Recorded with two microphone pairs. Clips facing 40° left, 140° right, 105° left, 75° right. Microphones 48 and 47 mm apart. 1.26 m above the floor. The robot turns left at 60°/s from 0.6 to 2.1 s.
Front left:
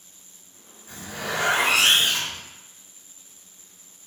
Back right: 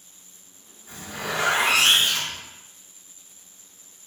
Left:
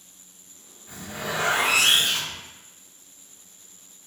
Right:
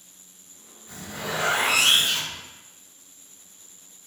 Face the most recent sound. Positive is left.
turn(degrees=95)